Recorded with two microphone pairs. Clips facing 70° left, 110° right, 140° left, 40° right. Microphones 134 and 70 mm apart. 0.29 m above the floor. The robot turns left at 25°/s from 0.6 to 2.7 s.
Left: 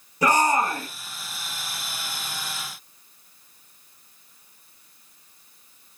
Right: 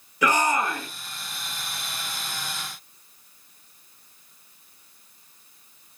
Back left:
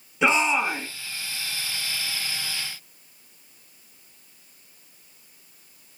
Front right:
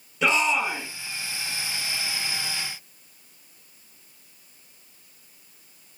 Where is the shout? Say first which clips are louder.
Left 2 dB, back left 1 dB; 70° left, 1.5 m; by 0.9 s 60° left, 1.5 m.